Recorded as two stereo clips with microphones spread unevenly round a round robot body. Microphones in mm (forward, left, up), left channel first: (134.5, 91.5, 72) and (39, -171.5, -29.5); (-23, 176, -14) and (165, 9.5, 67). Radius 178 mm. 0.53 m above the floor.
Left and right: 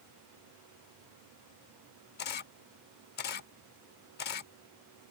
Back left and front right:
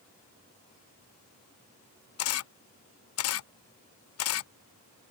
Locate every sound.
2.2 s a camera shutter: 140° left